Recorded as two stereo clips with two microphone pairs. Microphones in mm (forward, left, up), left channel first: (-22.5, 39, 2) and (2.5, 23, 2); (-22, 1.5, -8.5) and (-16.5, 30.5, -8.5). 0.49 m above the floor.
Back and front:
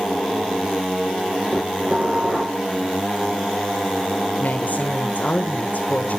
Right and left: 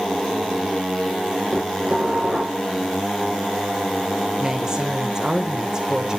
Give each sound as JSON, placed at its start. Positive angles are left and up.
{"t": 1.5, "sound": "dishes clattering", "azimuth_deg": 20, "distance_m": 7.5}
{"t": 4.4, "sound": "a woman speaking", "azimuth_deg": 140, "distance_m": 1.3}